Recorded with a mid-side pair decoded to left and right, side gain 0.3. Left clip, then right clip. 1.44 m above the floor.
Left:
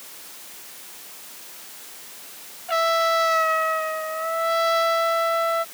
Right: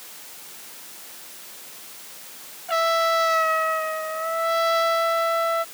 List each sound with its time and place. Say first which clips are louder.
2.7 s a trumpet: even; straight ahead